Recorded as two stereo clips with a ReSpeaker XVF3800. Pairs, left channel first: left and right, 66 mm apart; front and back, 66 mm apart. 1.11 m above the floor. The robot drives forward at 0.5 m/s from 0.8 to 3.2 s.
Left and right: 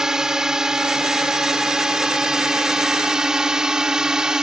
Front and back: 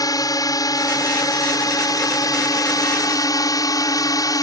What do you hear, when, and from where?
0.0 s a drone: 10° right